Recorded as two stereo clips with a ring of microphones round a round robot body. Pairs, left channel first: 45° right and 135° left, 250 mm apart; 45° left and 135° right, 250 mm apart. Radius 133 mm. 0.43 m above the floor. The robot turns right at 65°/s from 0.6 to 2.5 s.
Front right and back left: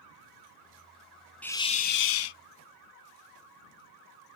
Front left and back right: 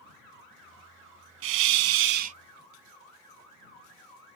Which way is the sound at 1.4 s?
130° right.